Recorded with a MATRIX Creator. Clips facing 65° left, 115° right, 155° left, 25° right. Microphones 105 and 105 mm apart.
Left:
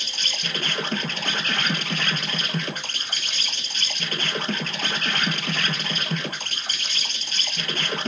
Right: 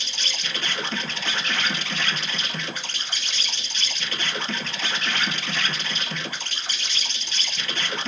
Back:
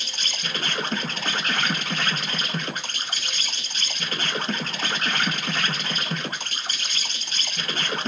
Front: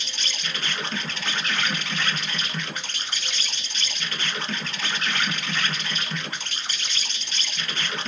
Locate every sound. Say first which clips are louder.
0.0 s an insect: left 1 dB, back 1 dB; 110° left, 1.1 m